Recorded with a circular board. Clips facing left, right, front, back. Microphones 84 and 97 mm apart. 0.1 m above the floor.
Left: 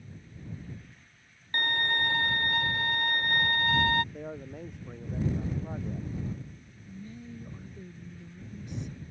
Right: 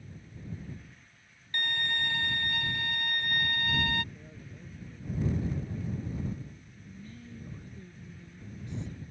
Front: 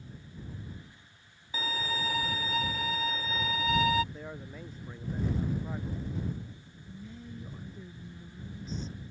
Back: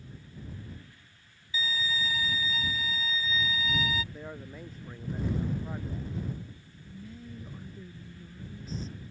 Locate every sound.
1.5 s a violin: 40° left
4.1 s a man speaking: 95° left
6.9 s a woman speaking: 95° left